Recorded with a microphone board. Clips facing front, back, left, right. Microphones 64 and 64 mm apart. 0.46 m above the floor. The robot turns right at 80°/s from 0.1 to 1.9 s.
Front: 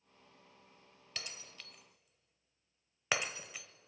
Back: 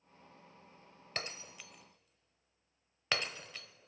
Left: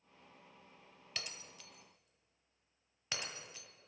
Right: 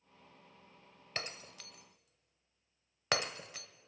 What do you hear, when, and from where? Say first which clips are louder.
1.2 s breaking glass: back 6 dB, right 5 dB; 140° right, 1.1 m; by 3.7 s 80° right, 1.1 m